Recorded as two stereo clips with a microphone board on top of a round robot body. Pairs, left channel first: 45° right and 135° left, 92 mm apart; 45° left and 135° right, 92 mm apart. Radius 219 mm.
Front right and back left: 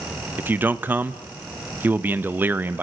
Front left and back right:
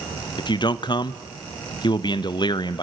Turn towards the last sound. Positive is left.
turn(degrees=70)